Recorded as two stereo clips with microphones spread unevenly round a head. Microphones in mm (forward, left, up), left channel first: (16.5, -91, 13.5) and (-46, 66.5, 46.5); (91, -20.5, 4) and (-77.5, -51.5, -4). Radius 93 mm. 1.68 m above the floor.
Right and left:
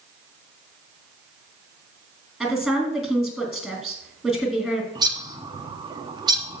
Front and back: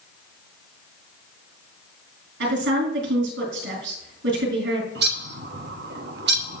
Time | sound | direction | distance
2.4 | a woman speaking | 160° right | 3.5 m
5.0 | a bird | 170° left | 1.0 m